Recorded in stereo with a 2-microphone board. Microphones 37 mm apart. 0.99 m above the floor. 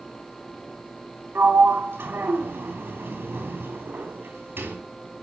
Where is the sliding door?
80° right, 3 m.